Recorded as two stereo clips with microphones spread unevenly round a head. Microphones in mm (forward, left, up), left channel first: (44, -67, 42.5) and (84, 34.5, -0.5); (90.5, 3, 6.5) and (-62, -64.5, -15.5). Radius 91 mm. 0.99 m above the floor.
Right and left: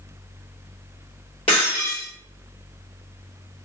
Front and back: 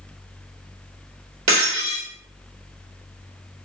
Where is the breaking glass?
170° right, 2 m.